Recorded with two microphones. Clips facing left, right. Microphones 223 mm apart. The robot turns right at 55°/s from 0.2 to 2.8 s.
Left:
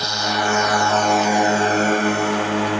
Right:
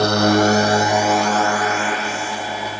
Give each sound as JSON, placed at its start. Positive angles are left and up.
{"t": 0.0, "sound": "a drone", "side_deg": -60}